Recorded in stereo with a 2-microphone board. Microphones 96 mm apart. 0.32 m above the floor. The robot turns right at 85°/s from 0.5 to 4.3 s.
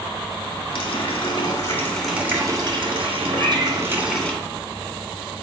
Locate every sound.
0.7 s a running tap: 70° left, 1.9 m; by 4.3 s 10° left, 1.9 m
3.3 s a cat meowing: 15° left, 3 m; by 3.8 s 50° left, 3 m